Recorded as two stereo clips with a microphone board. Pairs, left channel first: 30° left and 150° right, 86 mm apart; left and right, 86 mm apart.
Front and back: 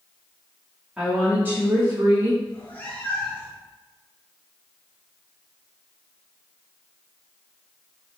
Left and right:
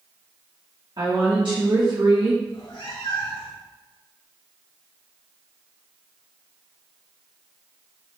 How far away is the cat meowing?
About 1.8 m.